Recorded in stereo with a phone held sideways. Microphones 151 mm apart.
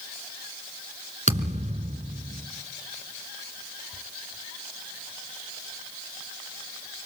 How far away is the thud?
About 2.5 m.